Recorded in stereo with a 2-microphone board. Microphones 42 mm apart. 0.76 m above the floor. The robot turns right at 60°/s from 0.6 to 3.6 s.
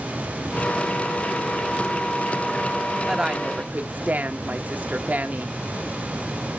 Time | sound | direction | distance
3.1 | a woman speaking | 170° right | 1.2 m